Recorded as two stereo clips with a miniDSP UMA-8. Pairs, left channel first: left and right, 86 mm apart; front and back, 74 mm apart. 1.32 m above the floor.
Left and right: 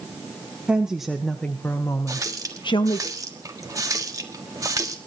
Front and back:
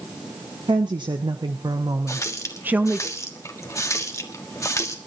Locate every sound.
0.7 s a woman speaking: 165° right, 1.3 m; by 3.1 s 105° left, 1.4 m
2.1 s a running tap: 45° right, 1.4 m